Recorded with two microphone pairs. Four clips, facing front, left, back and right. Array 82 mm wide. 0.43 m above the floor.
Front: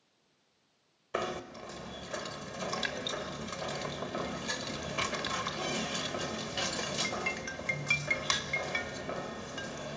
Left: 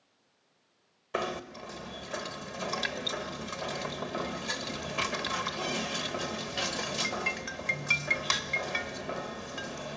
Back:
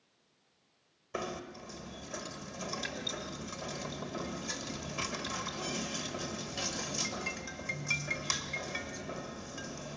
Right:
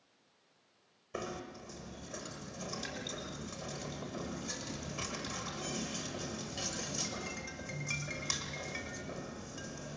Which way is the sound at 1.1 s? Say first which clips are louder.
Left 8 dB, front 4 dB; 60° left.